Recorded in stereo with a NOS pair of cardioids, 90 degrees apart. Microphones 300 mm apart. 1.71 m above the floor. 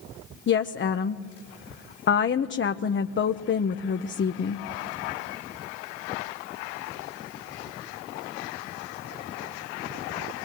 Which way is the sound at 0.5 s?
35° left.